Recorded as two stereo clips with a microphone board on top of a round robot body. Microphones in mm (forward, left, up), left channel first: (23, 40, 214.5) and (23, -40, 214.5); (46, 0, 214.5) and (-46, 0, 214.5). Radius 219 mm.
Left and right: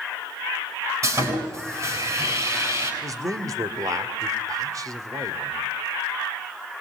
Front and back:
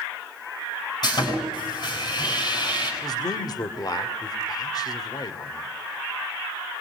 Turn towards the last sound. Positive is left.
turn(degrees=-45)